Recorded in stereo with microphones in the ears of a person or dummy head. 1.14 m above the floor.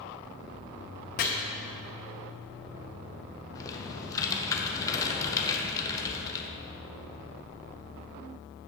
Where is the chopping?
50° left (ahead or behind), 1.0 m.